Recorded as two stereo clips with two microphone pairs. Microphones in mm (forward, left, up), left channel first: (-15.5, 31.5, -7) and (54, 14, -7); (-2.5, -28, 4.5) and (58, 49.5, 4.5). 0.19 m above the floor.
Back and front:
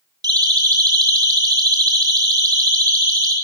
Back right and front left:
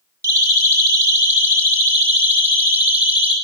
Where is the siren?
10° right, 9.5 m; by 3.4 s 25° right, 10.5 m.